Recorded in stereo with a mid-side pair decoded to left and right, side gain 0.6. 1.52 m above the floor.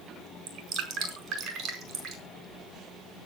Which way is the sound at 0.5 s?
55° right.